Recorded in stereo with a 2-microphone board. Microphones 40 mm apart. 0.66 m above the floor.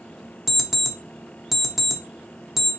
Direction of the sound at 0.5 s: 10° right (ahead or behind).